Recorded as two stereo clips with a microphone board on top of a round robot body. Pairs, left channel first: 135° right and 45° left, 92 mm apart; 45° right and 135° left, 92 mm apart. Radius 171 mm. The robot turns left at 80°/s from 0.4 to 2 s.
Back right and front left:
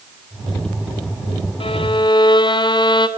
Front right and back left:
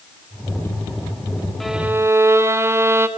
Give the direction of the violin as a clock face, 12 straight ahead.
4 o'clock.